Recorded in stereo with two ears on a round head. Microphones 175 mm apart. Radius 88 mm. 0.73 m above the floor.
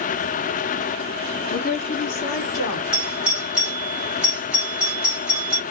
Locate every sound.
1.5 s a woman speaking: 45° left (ahead or behind), 1.2 m; by 2.8 s 65° left (ahead or behind), 1.9 m
2.9 s a doorbell: 5° right (ahead or behind), 1.6 m